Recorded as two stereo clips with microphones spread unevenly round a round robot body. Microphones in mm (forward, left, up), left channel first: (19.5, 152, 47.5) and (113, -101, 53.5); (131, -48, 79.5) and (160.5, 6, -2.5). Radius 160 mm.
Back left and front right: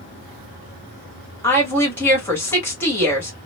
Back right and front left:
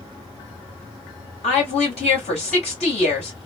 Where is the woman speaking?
170° right, 1.5 m.